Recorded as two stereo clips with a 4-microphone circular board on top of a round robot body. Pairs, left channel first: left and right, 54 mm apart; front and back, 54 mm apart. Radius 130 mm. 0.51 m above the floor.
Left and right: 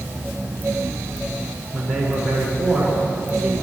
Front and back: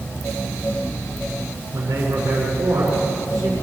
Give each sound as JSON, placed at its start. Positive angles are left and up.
{"t": 1.7, "sound": "a man speaking", "azimuth_deg": 175, "distance_m": 7.5}